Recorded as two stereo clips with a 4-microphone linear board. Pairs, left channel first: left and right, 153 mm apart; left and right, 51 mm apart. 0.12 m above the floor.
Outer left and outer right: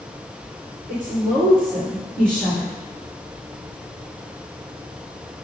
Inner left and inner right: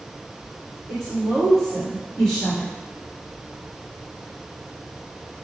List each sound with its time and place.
0.9 s a woman speaking: 5° left (ahead or behind), 1.7 m